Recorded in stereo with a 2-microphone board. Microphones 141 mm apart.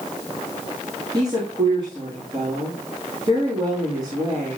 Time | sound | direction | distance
1.1 | a woman speaking | 35° right (ahead or behind) | 4.5 m